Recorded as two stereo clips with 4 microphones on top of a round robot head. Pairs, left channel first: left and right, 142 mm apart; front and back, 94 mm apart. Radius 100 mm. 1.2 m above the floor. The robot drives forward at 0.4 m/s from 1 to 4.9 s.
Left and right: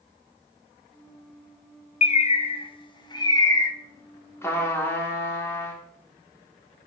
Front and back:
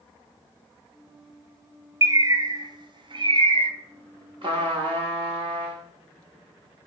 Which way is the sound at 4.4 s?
160° left.